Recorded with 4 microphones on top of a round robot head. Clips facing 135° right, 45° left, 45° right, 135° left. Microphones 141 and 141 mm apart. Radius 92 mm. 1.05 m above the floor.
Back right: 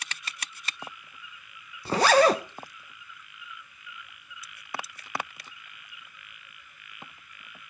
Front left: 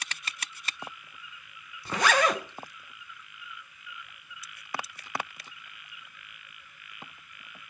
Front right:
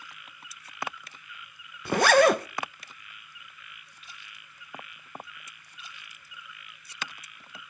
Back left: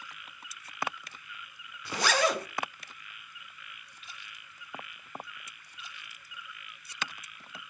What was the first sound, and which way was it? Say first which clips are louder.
A zipper: back right 6 dB, front right 9 dB; 80° right.